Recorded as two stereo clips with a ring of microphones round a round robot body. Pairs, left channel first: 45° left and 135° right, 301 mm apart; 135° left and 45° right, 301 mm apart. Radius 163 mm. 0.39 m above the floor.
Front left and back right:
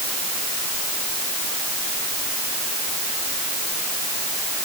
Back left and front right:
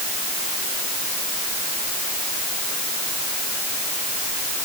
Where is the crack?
I don't hear a crack.